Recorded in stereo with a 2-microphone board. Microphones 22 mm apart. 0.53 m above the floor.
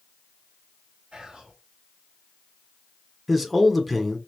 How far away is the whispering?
About 3 m.